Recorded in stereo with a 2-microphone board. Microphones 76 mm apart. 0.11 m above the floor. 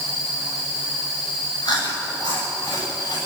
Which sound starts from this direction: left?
Chewing, at 1.6 s.